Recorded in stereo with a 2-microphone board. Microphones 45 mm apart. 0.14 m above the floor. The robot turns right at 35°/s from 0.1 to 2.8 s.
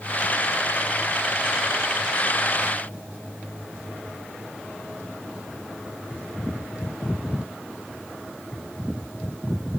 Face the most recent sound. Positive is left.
No sound to turn to.